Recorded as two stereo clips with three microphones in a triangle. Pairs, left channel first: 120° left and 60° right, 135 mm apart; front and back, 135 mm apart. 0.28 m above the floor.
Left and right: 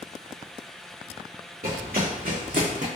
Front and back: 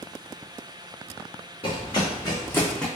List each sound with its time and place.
1.6 s running footsteps: 50° right, 1.6 m; by 2.9 s 85° right, 1.0 m